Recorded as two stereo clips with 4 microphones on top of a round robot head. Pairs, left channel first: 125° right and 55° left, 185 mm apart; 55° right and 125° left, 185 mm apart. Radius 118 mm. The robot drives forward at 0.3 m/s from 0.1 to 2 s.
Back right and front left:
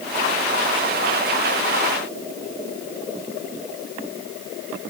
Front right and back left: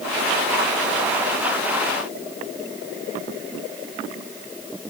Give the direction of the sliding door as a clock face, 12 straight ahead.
I don't hear a sliding door.